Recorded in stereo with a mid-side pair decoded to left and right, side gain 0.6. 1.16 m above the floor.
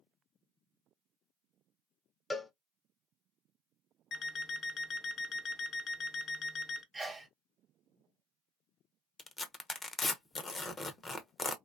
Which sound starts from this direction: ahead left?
An alarm clock, at 4.1 s.